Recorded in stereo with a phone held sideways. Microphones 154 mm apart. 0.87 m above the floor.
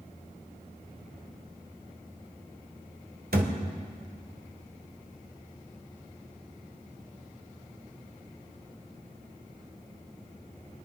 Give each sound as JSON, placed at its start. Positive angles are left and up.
{"t": 3.3, "sound": "a thud", "side_deg": -85, "distance_m": 1.9}